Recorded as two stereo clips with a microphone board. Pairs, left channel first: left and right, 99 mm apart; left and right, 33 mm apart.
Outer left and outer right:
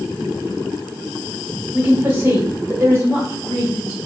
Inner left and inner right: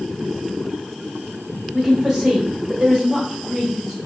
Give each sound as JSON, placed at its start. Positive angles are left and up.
{"t": 1.7, "sound": "a woman speaking", "side_deg": -20, "distance_m": 1.0}